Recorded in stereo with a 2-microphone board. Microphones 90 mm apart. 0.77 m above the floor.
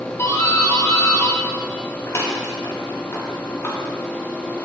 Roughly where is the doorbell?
Left.